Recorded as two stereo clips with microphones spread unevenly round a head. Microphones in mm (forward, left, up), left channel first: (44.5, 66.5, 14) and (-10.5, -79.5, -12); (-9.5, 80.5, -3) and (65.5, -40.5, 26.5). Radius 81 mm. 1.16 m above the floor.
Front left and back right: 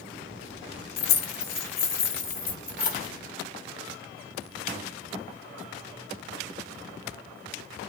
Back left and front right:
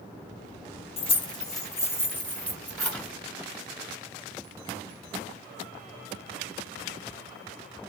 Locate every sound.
1.0 s keys jangling: 70° left, 0.9 m; by 3.1 s 35° left, 2.5 m